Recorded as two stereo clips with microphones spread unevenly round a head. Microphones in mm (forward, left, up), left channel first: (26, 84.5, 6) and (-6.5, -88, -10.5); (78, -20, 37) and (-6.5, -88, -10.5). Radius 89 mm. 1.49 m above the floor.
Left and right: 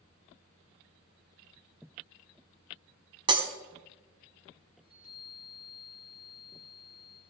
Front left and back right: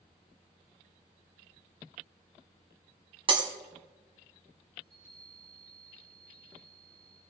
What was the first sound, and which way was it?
Breaking glass, 120° right.